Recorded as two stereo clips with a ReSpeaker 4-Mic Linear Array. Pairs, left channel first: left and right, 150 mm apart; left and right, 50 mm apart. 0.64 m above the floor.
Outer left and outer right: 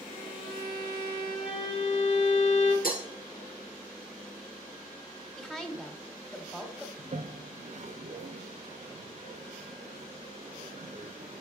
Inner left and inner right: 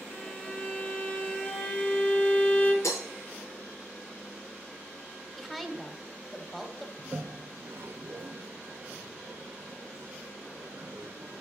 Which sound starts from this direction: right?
A toilet flushing, at 7.0 s.